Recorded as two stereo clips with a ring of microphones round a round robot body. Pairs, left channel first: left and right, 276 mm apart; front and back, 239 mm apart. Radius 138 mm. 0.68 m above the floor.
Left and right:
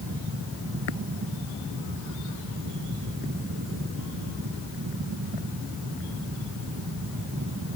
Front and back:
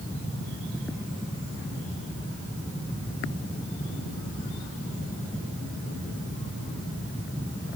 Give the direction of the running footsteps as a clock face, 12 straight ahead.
No running footsteps in this recording.